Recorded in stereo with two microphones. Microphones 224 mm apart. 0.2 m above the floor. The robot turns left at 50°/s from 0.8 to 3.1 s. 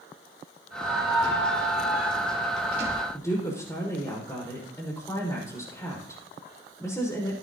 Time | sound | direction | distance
0.8 | a squeak | 85° left | 3 m
3.1 | a woman speaking | 15° left (ahead or behind) | 6 m